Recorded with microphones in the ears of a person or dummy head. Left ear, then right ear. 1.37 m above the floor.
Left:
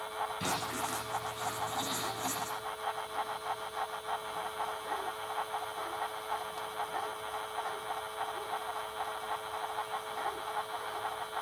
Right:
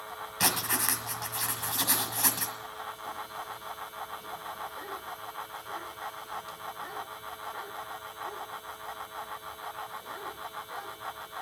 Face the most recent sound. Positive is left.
turn(degrees=-45)  # may be behind; listen again after turning